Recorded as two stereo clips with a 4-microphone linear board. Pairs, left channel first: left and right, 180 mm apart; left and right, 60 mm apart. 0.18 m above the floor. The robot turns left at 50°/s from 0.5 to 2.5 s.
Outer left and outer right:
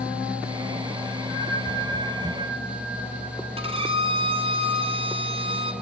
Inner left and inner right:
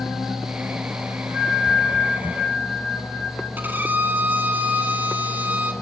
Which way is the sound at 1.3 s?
80° left.